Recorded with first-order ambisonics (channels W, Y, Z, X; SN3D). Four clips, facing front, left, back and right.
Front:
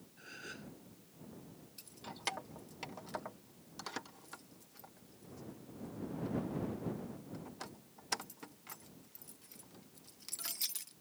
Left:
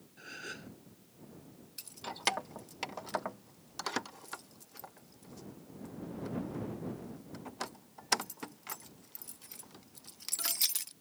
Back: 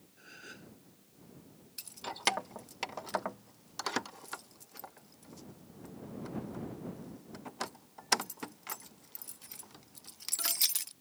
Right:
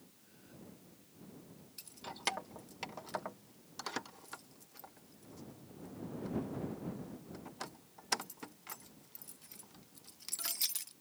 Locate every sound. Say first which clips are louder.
0.2 s a gasp: left 16 dB, front 1 dB; 85° left
1.8 s keys jangling: left 5 dB, back 9 dB; 150° left